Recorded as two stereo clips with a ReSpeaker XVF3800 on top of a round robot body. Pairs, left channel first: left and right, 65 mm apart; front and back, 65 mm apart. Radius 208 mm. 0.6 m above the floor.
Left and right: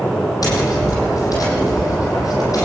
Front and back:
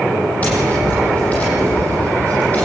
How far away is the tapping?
About 9 m.